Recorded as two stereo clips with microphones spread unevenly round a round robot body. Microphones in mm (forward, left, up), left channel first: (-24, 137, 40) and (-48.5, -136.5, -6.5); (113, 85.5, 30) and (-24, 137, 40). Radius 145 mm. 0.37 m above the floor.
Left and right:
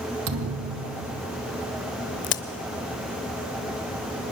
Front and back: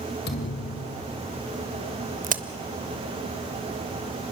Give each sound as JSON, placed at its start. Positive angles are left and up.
{"t": 0.3, "sound": "a thud", "azimuth_deg": -50, "distance_m": 1.7}
{"t": 2.2, "sound": "a crack", "azimuth_deg": 135, "distance_m": 1.0}